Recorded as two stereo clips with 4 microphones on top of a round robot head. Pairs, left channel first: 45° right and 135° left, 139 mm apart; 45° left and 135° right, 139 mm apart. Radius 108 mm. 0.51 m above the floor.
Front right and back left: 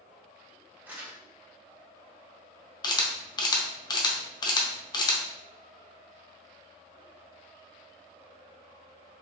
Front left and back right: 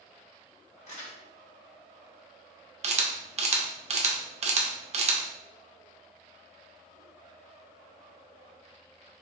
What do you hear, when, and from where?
0.9 s crumpling: 60° left, 1.8 m
2.8 s a camera shutter: 105° right, 0.8 m